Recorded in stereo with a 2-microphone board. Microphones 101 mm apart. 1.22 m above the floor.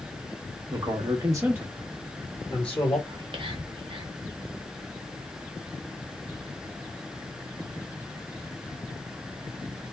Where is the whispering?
55° right (ahead or behind), 1.2 m.